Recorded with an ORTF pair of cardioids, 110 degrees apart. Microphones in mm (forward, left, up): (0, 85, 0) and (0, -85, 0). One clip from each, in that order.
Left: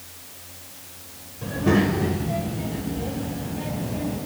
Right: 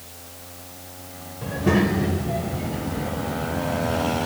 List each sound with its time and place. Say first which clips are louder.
1.4 s a child speaking: even; 10° right, 3.5 m